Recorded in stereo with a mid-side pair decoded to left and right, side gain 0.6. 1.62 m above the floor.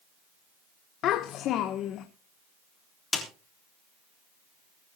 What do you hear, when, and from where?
1.0 s a child speaking: 60° left, 1.3 m
3.1 s a snare drum: 20° left, 3.5 m